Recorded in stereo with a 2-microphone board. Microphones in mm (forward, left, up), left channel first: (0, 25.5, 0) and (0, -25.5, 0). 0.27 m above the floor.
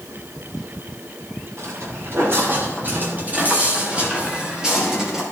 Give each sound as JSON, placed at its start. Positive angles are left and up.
{"t": 1.6, "sound": "footsteps", "side_deg": -55, "distance_m": 4.0}